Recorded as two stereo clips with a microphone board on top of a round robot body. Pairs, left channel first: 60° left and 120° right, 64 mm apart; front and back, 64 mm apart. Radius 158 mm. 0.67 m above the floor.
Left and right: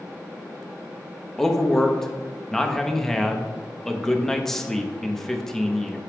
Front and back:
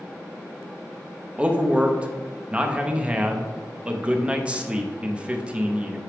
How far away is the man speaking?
About 1.1 m.